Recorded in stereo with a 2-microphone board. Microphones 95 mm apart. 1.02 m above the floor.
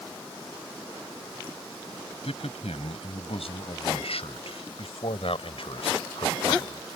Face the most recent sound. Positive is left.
turn(degrees=65)  # may be behind; listen again after turning